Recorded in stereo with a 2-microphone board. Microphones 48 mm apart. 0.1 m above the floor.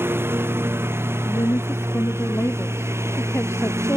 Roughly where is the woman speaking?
Left.